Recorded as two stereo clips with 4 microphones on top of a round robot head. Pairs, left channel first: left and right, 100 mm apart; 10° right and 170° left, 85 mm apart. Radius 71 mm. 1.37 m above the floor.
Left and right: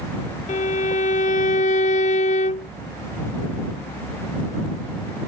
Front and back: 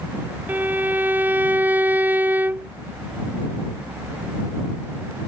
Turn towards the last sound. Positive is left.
turn(degrees=100)